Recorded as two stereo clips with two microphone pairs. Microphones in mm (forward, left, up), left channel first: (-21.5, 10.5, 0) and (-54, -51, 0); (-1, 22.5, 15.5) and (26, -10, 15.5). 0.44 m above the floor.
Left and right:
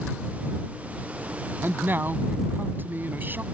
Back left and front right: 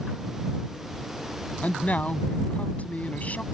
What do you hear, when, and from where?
1.6 s a man speaking: straight behind